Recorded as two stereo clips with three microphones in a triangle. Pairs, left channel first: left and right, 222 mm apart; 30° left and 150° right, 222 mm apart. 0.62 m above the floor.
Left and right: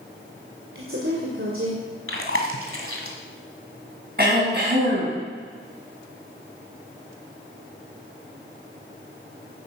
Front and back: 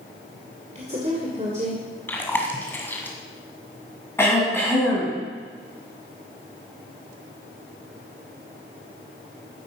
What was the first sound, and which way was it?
A woman speaking, 95° right.